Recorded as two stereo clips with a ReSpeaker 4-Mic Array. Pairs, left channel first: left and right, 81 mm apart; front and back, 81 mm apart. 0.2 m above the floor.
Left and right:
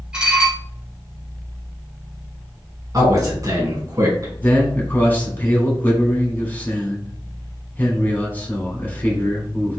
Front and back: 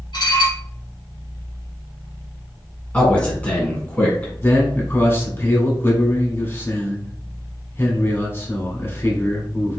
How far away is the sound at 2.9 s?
About 2 m.